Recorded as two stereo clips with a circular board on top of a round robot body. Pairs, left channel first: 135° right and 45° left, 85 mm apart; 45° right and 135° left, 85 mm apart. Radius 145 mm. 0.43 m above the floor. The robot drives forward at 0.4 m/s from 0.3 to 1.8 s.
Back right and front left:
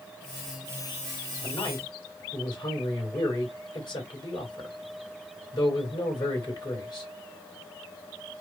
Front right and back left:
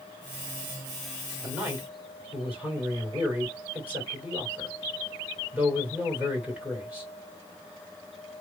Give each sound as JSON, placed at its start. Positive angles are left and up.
{"t": 1.4, "sound": "a man speaking", "azimuth_deg": -155, "distance_m": 2.5}